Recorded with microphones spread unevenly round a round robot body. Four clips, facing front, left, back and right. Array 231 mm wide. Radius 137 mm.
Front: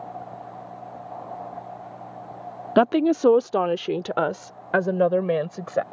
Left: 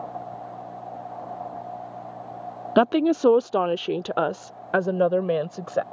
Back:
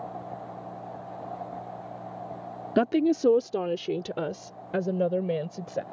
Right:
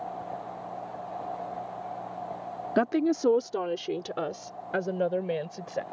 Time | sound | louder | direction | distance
2.8 | a woman speaking | left 6 dB, front 4 dB | 20° left | ?